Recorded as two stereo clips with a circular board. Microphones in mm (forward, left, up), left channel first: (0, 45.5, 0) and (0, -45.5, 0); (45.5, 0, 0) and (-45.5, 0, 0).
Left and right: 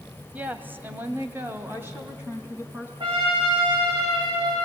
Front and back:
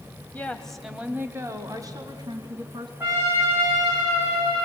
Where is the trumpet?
115° right, 9 m.